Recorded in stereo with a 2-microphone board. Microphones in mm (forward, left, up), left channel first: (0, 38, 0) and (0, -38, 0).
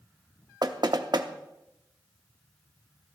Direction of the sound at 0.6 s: 65° right (ahead or behind).